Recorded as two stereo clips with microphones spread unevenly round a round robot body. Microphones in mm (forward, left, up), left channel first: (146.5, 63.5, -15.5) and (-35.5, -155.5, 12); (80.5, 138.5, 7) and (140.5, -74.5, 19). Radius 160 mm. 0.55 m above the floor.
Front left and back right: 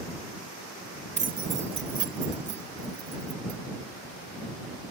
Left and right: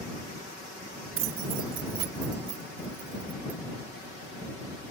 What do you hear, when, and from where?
1.2 s keys jangling: 60° right; by 3.6 s 100° right